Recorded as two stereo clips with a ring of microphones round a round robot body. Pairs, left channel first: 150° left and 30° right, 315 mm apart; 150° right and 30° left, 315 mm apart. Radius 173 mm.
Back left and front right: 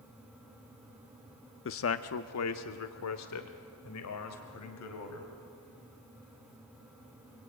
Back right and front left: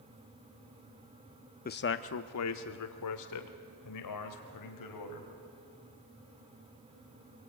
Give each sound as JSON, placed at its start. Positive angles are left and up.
{"t": 1.6, "sound": "a man speaking", "azimuth_deg": 165, "distance_m": 0.7}